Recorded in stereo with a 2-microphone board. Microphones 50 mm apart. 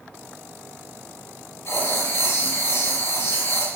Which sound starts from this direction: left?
Writing, at 1.6 s.